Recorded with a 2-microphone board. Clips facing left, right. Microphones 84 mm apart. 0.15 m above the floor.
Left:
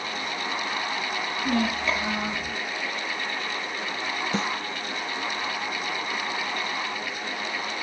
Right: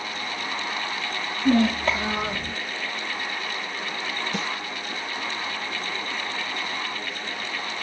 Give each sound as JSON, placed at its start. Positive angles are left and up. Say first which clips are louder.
{"t": 1.4, "sound": "a child speaking", "louder": "right 6 dB", "side_deg": -25, "distance_m": 2.5}
{"t": 4.3, "sound": "a snare drum", "louder": "left 4 dB", "side_deg": 30, "distance_m": 0.9}